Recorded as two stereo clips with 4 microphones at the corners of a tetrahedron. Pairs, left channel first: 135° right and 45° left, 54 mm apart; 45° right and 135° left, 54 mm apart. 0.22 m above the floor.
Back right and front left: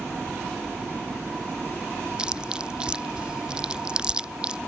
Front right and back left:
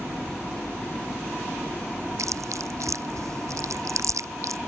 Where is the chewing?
120° left.